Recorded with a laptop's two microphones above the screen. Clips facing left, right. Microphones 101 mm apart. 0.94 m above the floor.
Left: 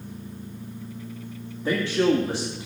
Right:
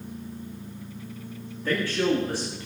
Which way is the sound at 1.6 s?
25° left (ahead or behind).